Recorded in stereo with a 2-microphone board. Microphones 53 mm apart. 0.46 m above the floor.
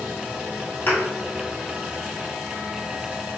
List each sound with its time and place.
0.9 s a thud: 45° left (ahead or behind), 1.6 m